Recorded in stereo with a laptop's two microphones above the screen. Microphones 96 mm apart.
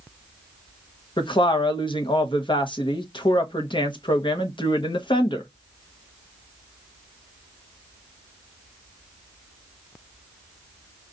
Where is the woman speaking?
60° left (ahead or behind), 0.9 m.